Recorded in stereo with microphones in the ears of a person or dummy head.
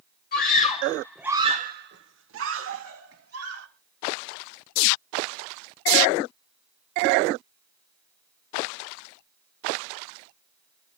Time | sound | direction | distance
0.3 | a scream | 50° left (ahead or behind) | 1.3 m